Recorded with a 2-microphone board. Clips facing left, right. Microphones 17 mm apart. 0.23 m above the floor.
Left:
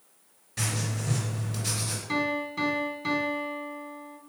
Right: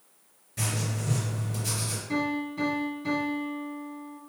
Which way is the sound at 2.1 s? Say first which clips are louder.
Left 1 dB; 50° left (ahead or behind).